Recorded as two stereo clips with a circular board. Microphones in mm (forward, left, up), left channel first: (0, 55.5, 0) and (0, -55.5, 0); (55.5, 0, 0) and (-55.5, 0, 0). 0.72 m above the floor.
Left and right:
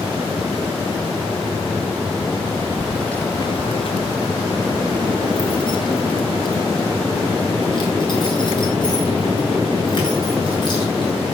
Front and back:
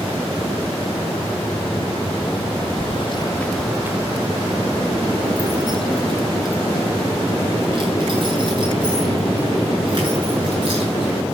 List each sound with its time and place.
2.8 s keys jangling: 10° right, 0.9 m; by 11.3 s 135° left, 9.5 m